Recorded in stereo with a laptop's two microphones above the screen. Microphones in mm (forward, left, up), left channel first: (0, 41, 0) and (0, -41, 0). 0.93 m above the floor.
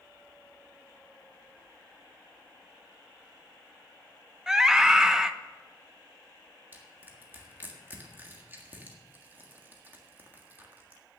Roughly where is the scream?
Centre.